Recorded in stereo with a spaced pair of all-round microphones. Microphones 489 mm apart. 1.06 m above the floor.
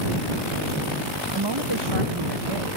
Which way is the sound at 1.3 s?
55° right (ahead or behind).